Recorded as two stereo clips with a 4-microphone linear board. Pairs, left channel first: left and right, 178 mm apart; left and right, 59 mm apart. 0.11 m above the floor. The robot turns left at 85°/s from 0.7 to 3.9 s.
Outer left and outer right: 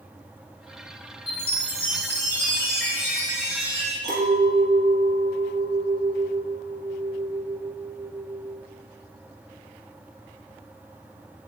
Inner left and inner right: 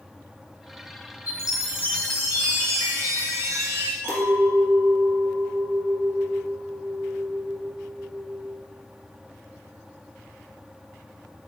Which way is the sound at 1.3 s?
80° left.